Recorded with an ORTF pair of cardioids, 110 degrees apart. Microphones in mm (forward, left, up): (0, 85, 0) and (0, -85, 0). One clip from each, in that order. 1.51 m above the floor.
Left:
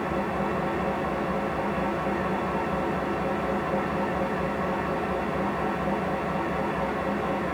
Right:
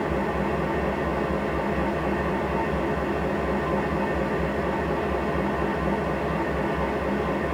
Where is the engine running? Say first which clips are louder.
Right 2 dB; 15° right, 1.6 m.